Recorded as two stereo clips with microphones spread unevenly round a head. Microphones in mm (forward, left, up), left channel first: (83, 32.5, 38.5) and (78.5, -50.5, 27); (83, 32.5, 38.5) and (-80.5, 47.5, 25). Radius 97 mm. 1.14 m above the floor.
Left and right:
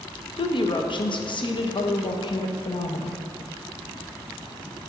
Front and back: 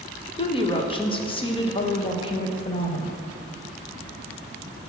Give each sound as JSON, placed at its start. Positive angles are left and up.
{"t": 0.4, "sound": "a woman speaking", "azimuth_deg": 55, "distance_m": 1.1}